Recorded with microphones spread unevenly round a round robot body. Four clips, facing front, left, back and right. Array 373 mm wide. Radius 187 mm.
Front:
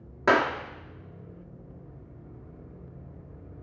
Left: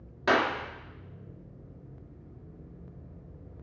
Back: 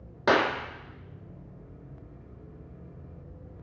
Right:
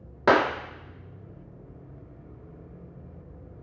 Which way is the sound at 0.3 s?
75° right.